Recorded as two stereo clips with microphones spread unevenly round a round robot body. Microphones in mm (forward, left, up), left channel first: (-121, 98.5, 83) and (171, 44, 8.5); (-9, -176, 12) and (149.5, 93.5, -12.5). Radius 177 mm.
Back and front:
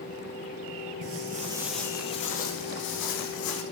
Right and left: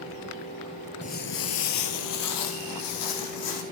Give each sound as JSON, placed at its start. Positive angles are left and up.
{"t": 1.0, "sound": "footsteps", "azimuth_deg": -60, "distance_m": 1.1}